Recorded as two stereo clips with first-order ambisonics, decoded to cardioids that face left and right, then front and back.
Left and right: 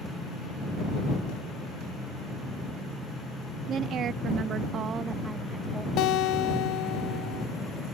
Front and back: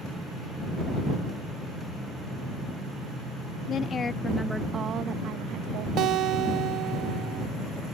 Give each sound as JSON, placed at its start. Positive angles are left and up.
{"t": 3.7, "sound": "a woman speaking", "azimuth_deg": -45}
{"t": 6.0, "sound": "a guitar", "azimuth_deg": 130}